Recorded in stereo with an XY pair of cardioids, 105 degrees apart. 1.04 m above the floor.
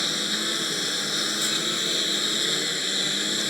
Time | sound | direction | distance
0.0 | a lawn mower | 10° left | ?